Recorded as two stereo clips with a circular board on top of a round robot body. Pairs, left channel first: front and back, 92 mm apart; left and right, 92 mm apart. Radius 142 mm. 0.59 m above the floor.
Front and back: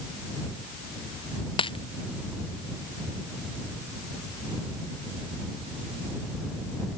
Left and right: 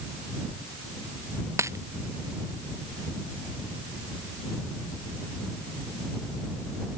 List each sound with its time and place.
1.6 s a dropped coin: 30° right